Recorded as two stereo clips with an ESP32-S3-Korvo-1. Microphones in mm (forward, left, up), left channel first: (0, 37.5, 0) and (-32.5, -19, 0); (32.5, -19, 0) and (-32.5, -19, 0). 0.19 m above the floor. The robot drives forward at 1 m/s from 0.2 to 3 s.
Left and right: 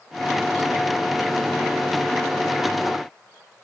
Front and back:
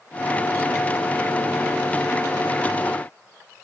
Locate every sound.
Only background noise.